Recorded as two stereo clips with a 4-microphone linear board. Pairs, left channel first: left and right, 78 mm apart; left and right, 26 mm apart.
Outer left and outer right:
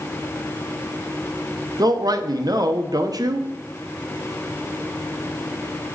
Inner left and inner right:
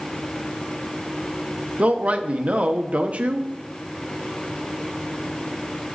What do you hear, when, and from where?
1.8 s a man speaking: 55° right (ahead or behind), 0.7 m